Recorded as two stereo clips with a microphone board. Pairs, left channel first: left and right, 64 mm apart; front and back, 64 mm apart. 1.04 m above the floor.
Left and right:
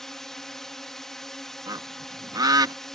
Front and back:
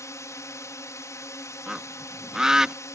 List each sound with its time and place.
0.0 s a drone: 5° left
1.7 s a bird: 95° right